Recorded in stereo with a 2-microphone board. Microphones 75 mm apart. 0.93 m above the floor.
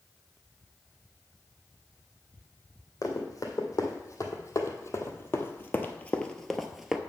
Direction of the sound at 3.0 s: 50° left (ahead or behind).